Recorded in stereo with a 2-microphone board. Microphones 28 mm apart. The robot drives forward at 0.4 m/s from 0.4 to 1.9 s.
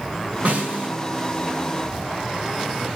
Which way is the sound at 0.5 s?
65° right (ahead or behind).